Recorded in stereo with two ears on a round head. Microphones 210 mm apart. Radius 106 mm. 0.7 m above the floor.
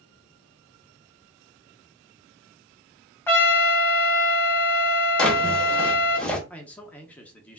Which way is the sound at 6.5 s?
5° left (ahead or behind).